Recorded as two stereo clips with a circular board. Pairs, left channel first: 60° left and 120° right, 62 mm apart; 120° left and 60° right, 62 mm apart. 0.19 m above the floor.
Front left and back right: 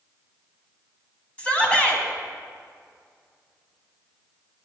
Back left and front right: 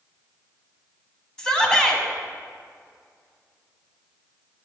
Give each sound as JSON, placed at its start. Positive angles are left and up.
{"t": 1.4, "sound": "a shout", "azimuth_deg": 70, "distance_m": 1.3}